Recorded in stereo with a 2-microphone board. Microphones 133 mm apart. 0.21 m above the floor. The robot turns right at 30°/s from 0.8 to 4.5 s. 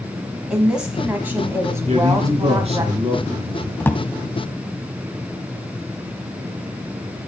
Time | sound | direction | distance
0.5 | a woman speaking | 165° right | 1.3 m
1.9 | a man speaking | 95° right | 2.5 m
3.8 | a drawer | 15° left (ahead or behind) | 0.7 m